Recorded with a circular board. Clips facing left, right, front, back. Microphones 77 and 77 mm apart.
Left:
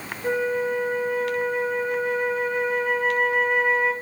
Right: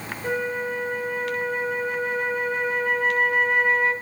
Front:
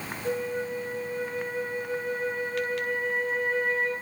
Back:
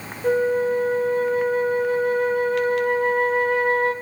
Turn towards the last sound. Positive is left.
turn(degrees=180)